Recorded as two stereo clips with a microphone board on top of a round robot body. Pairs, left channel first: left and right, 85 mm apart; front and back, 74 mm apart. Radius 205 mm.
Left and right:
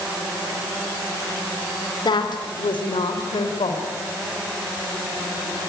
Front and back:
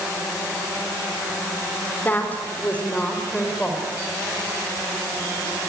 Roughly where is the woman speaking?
Ahead left.